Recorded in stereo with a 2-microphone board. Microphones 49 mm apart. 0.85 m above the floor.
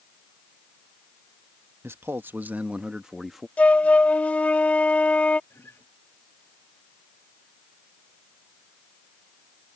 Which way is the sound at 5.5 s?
55° left (ahead or behind).